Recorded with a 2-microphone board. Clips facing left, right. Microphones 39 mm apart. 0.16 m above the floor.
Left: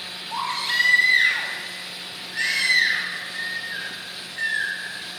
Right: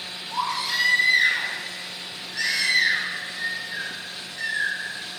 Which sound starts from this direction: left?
A baby crying, at 0.3 s.